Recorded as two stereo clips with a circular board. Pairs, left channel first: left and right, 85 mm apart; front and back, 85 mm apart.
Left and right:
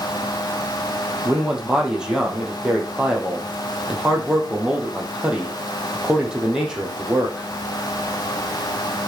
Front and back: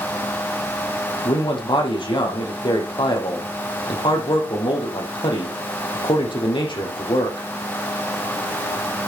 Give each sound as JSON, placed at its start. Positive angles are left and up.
{"t": 1.2, "sound": "a man speaking", "azimuth_deg": -10, "distance_m": 5.0}